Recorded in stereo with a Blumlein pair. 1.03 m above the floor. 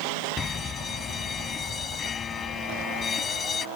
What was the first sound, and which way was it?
A fire alarm, 20° left.